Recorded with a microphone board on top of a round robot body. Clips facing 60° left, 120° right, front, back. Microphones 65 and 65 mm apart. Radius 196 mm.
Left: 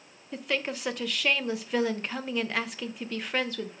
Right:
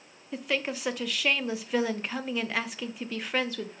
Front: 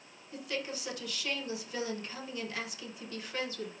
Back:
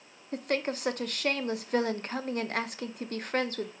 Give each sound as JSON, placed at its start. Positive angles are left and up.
{"t": 0.3, "sound": "a woman speaking", "azimuth_deg": 150, "distance_m": 0.6}